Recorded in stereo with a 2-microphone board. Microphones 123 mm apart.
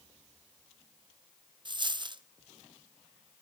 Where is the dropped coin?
35° right (ahead or behind), 0.5 m.